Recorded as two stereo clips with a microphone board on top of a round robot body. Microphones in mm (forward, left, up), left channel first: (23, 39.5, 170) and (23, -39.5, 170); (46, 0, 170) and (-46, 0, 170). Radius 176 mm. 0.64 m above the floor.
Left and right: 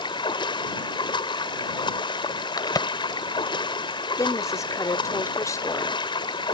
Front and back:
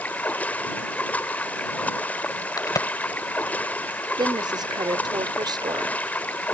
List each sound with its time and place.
0.0 s running water: 75° left
2.6 s a crack: 50° left
4.2 s a woman speaking: 140° left